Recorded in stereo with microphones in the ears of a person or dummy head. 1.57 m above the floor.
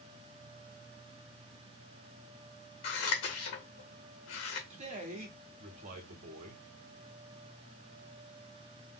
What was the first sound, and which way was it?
Scissors, 50° left (ahead or behind).